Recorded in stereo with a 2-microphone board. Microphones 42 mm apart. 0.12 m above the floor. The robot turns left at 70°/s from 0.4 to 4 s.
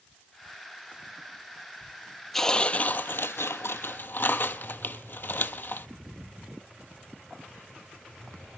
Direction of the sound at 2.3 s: 175° left.